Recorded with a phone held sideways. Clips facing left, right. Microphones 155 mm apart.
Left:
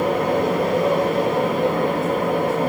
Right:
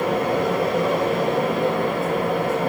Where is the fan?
50° left (ahead or behind), 9 m.